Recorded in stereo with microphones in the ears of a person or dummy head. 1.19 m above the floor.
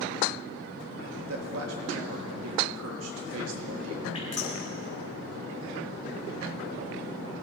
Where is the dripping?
35° left (ahead or behind), 3 m.